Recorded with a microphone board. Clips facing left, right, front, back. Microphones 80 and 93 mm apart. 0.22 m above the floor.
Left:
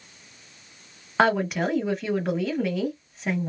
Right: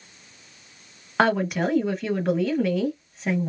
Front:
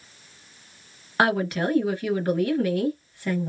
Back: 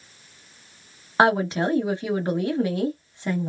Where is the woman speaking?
Straight behind, 1.0 m.